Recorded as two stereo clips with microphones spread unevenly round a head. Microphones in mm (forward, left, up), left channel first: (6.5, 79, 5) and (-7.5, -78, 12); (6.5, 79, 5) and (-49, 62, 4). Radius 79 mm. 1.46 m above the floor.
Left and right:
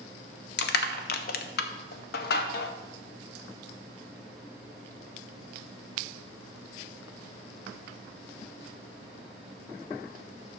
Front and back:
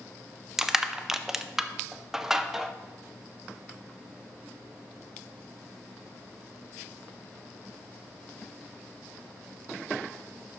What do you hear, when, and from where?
0.6 s crushing: 115° left, 0.6 m